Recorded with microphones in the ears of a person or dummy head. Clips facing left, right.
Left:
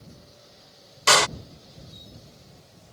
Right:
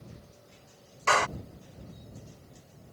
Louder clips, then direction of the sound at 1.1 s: Left 4 dB; 45° left (ahead or behind).